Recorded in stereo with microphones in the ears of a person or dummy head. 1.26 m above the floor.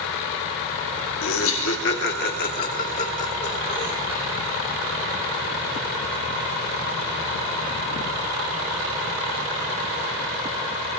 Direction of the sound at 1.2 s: 85° left.